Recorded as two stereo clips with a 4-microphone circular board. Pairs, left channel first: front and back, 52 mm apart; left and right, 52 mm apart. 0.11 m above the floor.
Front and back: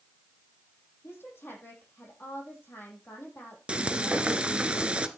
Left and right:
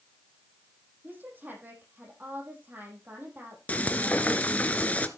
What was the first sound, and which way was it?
A woman speaking, 40° right.